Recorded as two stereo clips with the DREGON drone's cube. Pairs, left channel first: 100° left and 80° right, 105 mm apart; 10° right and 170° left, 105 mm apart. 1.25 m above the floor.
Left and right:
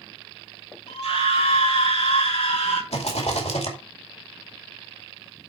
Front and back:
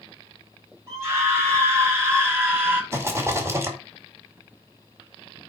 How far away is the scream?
About 5 m.